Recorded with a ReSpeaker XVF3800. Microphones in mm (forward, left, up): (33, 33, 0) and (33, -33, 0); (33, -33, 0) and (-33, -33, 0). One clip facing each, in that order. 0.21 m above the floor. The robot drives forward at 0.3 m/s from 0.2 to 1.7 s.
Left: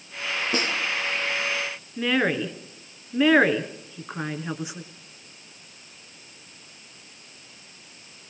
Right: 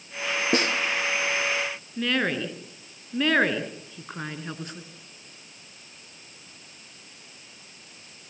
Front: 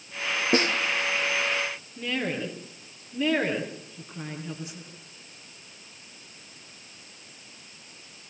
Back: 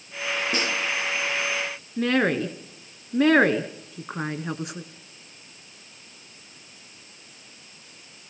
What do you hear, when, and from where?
0.5 s a snare drum: 50° right, 3.5 m
2.0 s a woman speaking: 170° left, 2.5 m